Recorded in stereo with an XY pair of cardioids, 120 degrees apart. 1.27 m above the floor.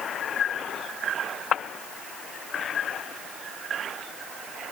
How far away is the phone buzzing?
No phone buzzing in this recording.